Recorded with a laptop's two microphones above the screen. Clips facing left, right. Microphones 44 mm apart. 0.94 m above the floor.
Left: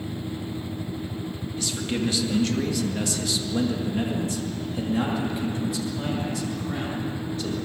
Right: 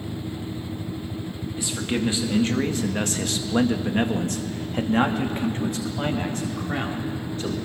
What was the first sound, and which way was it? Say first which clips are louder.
A man speaking: right 2 dB; 20° right (ahead or behind).